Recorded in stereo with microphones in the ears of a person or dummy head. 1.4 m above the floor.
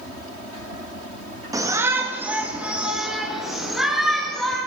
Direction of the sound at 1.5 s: 20° right (ahead or behind).